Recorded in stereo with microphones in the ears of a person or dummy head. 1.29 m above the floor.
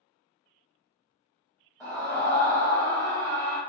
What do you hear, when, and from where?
1.8 s a scream: 15° left (ahead or behind), 0.8 m